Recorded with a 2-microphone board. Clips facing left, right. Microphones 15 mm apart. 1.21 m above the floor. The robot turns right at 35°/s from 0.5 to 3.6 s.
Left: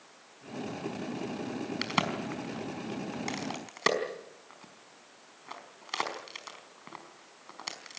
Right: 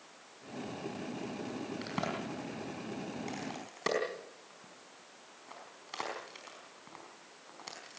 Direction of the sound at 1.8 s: 75° left (ahead or behind).